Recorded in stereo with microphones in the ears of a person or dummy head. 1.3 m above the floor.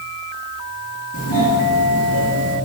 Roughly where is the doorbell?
Left.